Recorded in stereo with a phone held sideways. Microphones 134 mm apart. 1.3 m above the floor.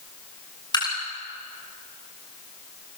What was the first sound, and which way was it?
Dripping, 30° left (ahead or behind).